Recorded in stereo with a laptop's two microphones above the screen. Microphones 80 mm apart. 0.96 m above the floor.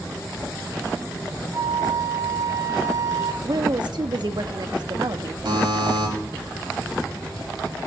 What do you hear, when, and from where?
1.5 s a flute: 50° right (ahead or behind), 2.5 m
3.4 s a woman speaking: 65° right (ahead or behind), 1.2 m
5.5 s a buzzer: 85° right, 5.5 m